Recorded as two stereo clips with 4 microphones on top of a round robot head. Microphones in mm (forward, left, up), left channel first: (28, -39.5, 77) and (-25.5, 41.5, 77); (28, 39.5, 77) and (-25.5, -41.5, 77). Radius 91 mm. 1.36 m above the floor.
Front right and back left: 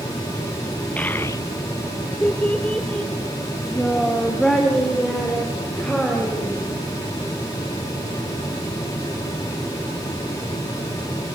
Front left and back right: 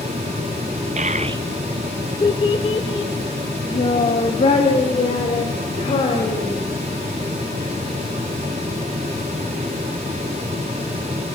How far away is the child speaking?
About 0.7 m.